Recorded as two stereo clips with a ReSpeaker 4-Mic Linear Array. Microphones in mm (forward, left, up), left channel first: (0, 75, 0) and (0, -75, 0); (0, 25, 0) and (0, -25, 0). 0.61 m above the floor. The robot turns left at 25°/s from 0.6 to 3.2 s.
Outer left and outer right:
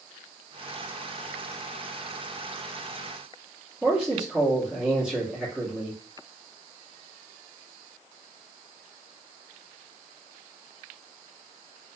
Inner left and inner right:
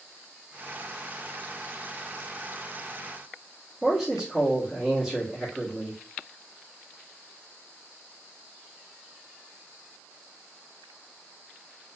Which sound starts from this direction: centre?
A man speaking, at 3.8 s.